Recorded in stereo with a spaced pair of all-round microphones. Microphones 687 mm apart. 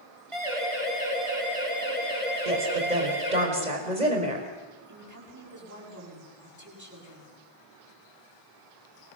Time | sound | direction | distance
0.3 | a siren | 45° right (ahead or behind) | 8 m
2.5 | a woman speaking | 80° right | 5.5 m
4.9 | a woman speaking | 25° right (ahead or behind) | 8.5 m